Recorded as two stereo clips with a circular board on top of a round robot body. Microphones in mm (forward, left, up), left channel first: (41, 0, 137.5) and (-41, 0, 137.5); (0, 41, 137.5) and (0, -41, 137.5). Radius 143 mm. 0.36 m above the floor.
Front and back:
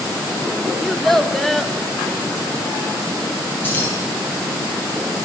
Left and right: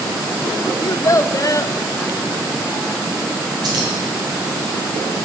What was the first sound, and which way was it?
A child speaking, 85° left.